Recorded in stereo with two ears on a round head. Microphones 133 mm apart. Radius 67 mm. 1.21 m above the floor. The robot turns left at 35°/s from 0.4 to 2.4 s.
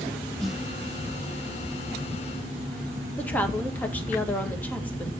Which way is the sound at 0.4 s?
5° left (ahead or behind).